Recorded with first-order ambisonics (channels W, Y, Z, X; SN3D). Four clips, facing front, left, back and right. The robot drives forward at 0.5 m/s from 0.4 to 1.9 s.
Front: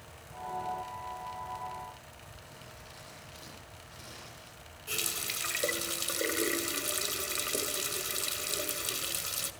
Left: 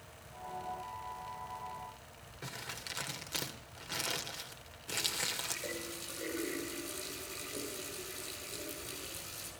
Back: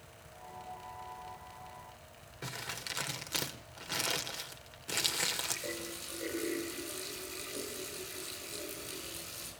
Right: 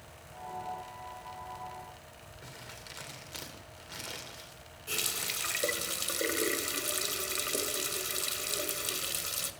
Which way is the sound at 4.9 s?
40° right.